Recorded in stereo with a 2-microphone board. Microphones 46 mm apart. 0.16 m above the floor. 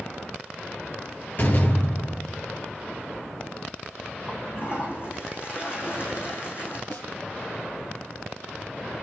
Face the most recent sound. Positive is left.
turn(degrees=55)  # may be behind; listen again after turning